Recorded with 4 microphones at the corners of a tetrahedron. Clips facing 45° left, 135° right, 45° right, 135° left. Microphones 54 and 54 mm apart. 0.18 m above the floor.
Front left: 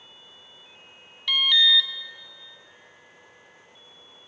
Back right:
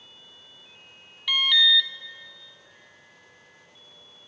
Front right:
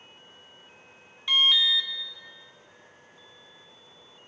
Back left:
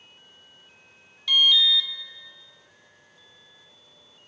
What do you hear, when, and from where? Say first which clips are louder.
1.3 s an alarm: even, back left 2 dB; 60° right, 0.8 m